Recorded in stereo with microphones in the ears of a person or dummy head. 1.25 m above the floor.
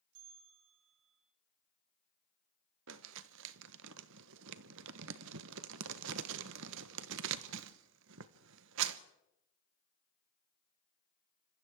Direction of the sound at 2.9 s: 70° right (ahead or behind).